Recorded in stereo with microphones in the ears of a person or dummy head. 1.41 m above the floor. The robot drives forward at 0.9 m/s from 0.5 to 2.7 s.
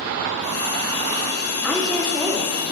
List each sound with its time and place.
1.6 s a woman speaking: 5° left (ahead or behind), 2 m